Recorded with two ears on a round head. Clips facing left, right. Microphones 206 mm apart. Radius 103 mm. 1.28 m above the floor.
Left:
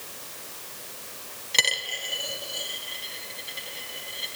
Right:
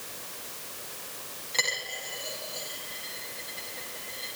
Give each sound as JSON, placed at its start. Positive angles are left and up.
{"t": 1.5, "sound": "a dropped coin", "side_deg": 45, "distance_m": 3.0}